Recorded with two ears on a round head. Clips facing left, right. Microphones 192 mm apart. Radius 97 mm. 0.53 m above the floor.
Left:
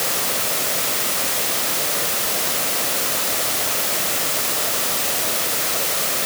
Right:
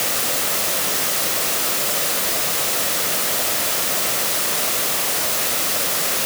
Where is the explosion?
No explosion in this recording.